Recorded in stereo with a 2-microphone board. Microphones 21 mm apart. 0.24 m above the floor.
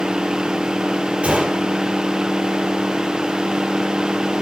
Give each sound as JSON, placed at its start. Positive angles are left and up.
{"t": 1.2, "sound": "a gunshot", "side_deg": -75, "distance_m": 5.5}